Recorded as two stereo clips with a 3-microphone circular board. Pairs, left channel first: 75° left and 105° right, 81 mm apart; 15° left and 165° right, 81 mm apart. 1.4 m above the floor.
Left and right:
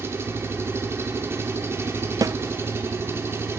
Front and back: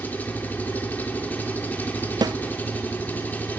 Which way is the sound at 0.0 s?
50° right.